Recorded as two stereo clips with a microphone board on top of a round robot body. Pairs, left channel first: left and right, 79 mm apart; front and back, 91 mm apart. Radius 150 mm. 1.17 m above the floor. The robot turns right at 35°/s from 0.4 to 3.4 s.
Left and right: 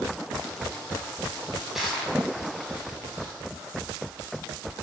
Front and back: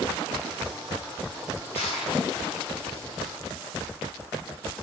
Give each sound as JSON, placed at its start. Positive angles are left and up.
{"t": 1.8, "sound": "crushing", "azimuth_deg": -5, "distance_m": 5.5}